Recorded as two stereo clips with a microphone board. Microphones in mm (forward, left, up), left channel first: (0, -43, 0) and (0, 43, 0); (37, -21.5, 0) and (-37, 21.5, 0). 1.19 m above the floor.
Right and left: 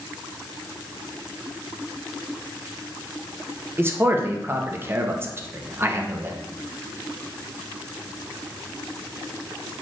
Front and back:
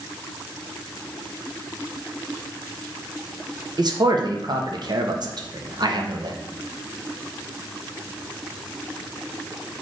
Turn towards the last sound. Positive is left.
turn(degrees=145)